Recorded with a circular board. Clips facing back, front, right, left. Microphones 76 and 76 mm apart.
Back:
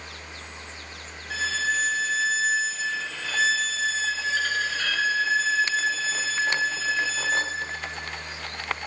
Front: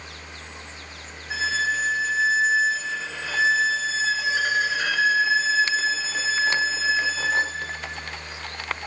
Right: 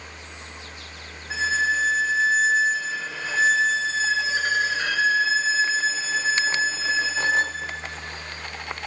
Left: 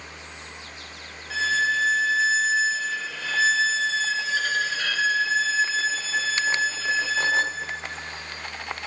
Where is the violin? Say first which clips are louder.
Front 2 dB, even; 50° right, 0.9 m.